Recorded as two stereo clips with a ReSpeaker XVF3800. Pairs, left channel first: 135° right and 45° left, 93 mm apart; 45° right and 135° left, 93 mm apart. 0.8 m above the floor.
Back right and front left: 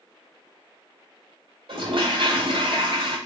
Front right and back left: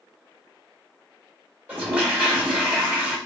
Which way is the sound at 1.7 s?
65° left.